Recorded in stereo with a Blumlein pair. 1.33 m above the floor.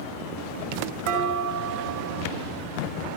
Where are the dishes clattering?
50° right, 4.5 m.